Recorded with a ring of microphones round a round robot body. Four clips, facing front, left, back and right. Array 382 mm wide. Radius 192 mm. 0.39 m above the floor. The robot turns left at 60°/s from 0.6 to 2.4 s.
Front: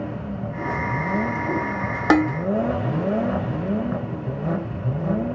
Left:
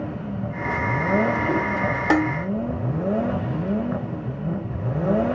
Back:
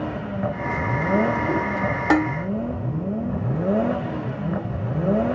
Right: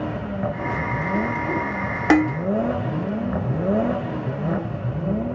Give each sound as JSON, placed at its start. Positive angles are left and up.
{"t": 2.1, "sound": "dishes clattering", "azimuth_deg": -30, "distance_m": 0.6}